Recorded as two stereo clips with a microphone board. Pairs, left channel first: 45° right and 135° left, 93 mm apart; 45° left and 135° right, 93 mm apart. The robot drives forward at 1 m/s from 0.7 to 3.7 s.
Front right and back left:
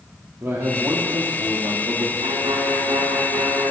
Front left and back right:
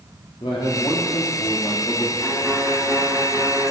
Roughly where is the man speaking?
Left.